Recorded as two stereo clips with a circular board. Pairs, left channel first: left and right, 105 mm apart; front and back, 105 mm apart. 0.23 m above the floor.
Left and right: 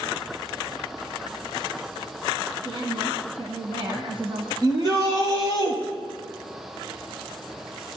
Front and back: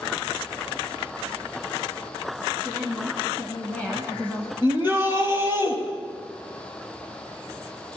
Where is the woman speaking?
70° right, 2.5 m.